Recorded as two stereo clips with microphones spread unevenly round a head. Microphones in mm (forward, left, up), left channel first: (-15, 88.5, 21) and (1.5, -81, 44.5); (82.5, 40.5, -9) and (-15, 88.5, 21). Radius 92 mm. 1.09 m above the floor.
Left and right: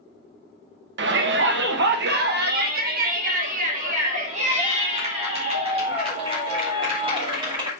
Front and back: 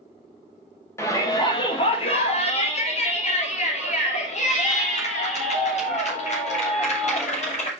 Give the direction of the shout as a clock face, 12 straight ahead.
3 o'clock.